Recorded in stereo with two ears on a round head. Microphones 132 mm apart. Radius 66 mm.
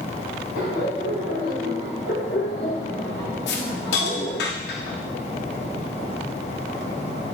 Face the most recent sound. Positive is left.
turn(degrees=80)